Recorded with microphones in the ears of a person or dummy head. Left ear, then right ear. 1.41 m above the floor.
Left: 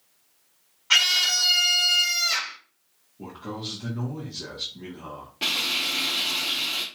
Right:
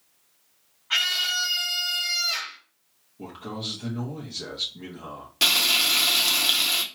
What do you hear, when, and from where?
0.9 s a scream: 75° left (ahead or behind), 1.4 m
3.2 s a man speaking: 35° right (ahead or behind), 1.2 m
5.4 s frying: 80° right, 0.8 m